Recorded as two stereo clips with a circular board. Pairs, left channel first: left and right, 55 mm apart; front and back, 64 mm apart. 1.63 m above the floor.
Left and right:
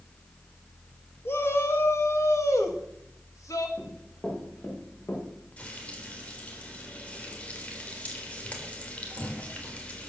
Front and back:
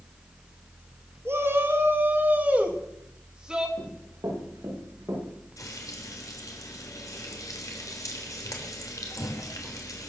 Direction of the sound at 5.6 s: 25° left.